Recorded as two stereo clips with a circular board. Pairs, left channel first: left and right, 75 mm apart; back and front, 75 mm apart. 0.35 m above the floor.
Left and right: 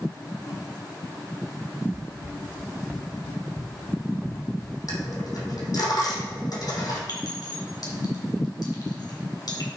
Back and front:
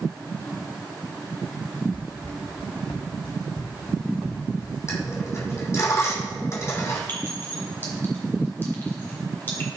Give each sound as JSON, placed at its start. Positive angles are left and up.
{"t": 1.9, "sound": "running footsteps", "azimuth_deg": -150, "distance_m": 1.6}
{"t": 4.9, "sound": "a dropped coin", "azimuth_deg": 130, "distance_m": 3.0}
{"t": 7.1, "sound": "a clink", "azimuth_deg": 120, "distance_m": 3.0}